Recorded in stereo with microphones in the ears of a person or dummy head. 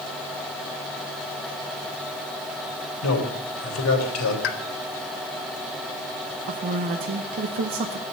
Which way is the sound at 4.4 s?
70° left (ahead or behind).